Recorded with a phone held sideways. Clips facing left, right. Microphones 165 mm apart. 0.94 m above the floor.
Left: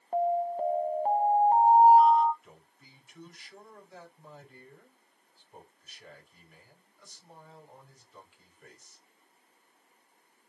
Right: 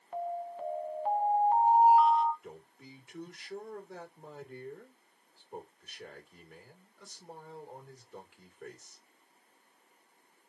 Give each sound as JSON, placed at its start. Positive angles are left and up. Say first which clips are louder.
{"t": 0.1, "sound": "an alarm", "louder": "left 9 dB", "side_deg": 40, "distance_m": 0.8}
{"t": 2.4, "sound": "a man speaking", "louder": "right 8 dB", "side_deg": -70, "distance_m": 2.5}